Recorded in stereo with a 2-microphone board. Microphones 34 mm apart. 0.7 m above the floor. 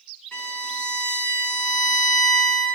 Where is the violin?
60° left (ahead or behind), 1.3 m.